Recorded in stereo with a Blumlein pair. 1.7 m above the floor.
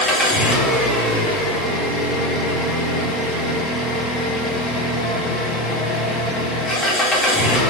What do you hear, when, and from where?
0.0 s an engine running: 10° left, 1.9 m